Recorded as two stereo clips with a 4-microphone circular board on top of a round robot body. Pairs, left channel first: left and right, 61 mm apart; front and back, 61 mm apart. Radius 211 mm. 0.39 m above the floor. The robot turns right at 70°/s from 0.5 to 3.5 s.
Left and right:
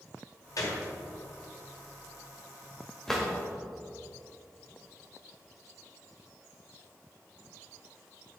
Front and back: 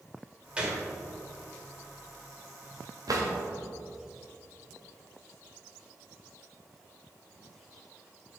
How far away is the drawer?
About 1.6 m.